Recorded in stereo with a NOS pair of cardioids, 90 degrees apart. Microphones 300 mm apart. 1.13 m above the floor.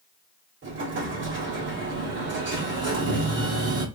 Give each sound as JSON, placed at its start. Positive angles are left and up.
{"t": 0.6, "sound": "an explosion", "azimuth_deg": -40, "distance_m": 1.8}